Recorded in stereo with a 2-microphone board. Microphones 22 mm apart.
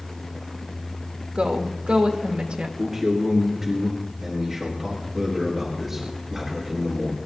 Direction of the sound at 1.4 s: 65° right (ahead or behind).